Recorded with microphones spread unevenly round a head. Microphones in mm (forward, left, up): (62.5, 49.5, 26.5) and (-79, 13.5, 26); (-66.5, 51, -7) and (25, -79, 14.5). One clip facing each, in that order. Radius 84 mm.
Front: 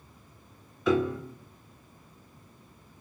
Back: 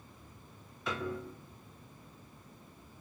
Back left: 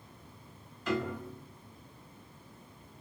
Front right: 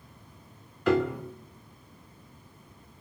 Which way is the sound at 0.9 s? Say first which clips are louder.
Front 12 dB, front right 8 dB; 15° right.